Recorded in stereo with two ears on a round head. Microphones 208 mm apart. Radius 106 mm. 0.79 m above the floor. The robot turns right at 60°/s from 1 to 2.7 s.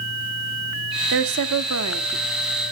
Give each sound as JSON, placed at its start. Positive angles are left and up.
{"t": 1.1, "sound": "a woman speaking", "azimuth_deg": -115, "distance_m": 1.3}